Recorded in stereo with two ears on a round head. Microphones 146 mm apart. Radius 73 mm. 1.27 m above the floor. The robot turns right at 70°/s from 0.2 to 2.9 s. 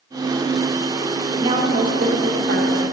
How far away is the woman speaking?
About 1.2 m.